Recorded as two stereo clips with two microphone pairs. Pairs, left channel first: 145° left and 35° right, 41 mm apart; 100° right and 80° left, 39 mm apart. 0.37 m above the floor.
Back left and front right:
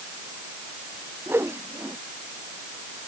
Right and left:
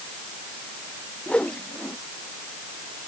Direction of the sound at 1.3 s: 40° right.